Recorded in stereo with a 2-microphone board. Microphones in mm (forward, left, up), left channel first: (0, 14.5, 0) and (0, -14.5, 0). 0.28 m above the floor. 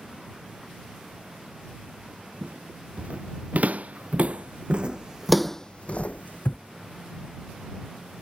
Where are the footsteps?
65° right (ahead or behind); by 6.6 s 75° left (ahead or behind).